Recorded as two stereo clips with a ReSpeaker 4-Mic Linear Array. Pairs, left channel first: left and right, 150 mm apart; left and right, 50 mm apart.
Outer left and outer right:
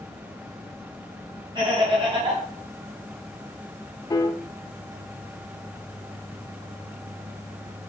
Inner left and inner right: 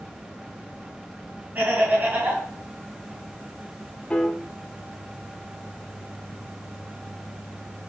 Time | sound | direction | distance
1.6 | laughter | 35° right (ahead or behind) | 3 m
4.1 | a piano | 25° left (ahead or behind) | 0.7 m